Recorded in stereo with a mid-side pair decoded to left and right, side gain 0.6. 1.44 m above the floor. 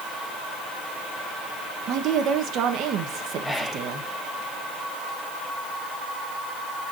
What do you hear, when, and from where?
1.9 s a woman speaking: 60° right, 1.9 m
3.4 s whispering: 10° left, 0.8 m